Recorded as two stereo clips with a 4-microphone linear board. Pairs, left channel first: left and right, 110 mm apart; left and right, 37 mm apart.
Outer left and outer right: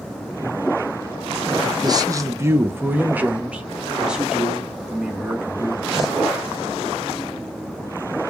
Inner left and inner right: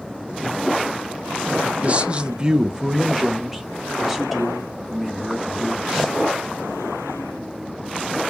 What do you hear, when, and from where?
1.8 s a man speaking: 40° right (ahead or behind), 0.6 m; by 6.2 s 5° right (ahead or behind), 3 m